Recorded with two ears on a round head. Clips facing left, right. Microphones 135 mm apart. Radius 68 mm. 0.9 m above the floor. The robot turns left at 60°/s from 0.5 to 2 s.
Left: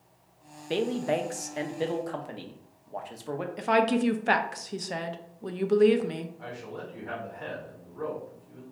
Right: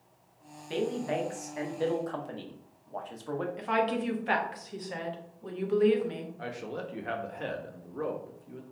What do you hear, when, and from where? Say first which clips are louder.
0.7 s a woman speaking: left 3 dB; 90° left, 0.5 m; by 3.5 s 15° left, 0.5 m
3.6 s a woman speaking: left 6 dB; 55° left (ahead or behind), 0.5 m
6.4 s a man speaking: right 2 dB; 65° right (ahead or behind), 0.9 m